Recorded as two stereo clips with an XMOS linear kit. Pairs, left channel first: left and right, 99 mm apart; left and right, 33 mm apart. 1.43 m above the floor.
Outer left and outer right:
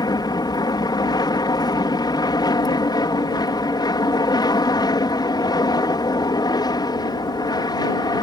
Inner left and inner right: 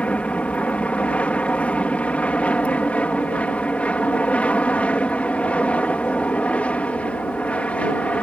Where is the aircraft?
45° left (ahead or behind).